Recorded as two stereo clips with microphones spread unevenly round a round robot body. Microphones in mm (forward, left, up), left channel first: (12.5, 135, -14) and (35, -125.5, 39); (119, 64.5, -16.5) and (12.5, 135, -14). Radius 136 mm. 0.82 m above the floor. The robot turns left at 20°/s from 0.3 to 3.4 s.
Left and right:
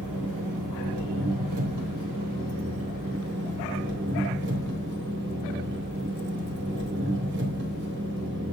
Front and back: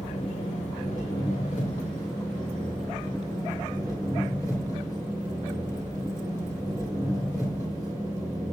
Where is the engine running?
75° right, 2.5 m; by 8.5 s 135° right, 2.5 m.